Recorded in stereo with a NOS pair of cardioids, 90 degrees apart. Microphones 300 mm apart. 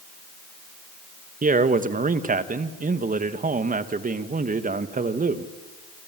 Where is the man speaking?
25° right, 2.0 m.